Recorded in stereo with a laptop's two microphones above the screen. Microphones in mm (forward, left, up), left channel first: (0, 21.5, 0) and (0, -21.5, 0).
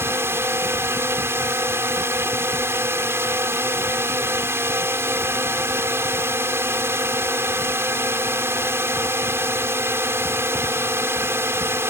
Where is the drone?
75° right (ahead or behind).